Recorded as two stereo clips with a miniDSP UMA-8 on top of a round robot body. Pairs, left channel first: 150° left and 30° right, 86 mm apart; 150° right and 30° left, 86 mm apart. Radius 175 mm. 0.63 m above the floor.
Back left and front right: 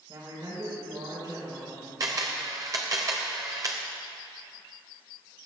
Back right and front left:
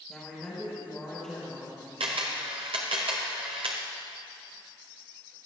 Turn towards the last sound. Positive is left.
turn(degrees=20)